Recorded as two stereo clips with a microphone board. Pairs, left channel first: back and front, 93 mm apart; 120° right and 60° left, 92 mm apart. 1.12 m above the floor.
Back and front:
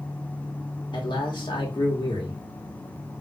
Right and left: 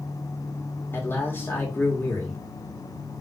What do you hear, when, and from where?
0.9 s a man speaking: straight behind, 1.3 m